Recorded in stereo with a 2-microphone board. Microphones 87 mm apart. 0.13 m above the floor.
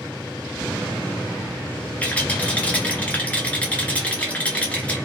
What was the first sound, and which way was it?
A rattle, 15° left (ahead or behind).